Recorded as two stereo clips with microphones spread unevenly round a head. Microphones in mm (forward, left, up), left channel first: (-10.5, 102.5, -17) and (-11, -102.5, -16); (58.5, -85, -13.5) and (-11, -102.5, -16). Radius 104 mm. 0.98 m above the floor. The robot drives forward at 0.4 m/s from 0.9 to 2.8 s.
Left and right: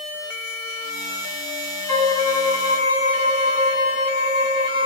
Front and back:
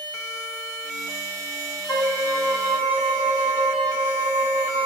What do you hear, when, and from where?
1.9 s a violin: 120° left, 2.0 m; by 4.9 s 125° left, 2 m